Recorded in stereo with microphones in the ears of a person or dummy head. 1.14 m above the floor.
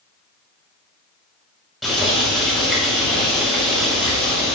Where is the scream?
No scream in this recording.